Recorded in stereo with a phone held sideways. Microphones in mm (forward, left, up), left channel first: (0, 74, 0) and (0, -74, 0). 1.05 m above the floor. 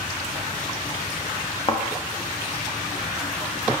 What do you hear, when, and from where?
1.7 s a thud: 35° left (ahead or behind), 0.5 m